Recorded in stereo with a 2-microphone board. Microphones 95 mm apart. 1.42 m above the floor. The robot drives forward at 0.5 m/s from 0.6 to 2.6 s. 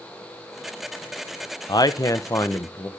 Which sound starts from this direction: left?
A man speaking, at 1.7 s.